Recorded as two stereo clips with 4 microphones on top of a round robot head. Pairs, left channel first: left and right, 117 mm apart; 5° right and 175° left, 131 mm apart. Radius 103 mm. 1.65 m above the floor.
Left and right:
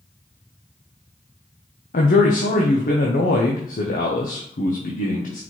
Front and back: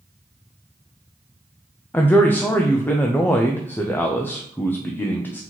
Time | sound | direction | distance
1.9 | a man speaking | 70° left | 0.6 m